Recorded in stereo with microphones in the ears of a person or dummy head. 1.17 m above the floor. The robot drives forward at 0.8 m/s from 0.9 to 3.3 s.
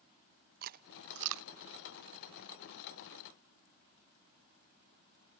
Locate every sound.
0.6 s chewing: 45° right (ahead or behind), 0.8 m; by 1.5 s 75° right (ahead or behind), 0.6 m